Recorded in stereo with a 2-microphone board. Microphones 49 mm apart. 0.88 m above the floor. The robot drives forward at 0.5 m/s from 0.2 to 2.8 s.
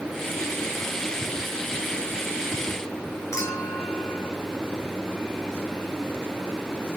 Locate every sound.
3.3 s a clink: 80° left, 9 m